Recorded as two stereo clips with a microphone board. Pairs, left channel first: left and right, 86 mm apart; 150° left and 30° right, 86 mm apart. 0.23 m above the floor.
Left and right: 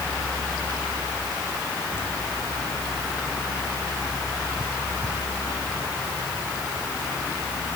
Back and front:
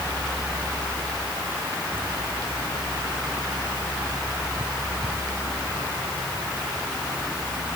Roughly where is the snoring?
No snoring in this recording.